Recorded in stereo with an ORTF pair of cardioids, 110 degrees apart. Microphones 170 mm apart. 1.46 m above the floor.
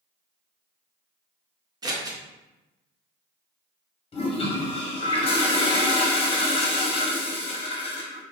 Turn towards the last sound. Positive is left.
turn(degrees=35)